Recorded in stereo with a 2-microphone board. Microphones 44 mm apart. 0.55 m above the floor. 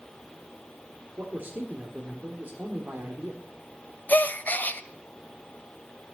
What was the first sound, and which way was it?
A man speaking, 35° right (ahead or behind).